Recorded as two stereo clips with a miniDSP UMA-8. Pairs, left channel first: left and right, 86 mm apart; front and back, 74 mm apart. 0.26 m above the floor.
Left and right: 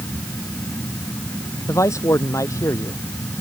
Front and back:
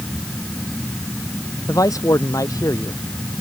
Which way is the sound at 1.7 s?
35° left.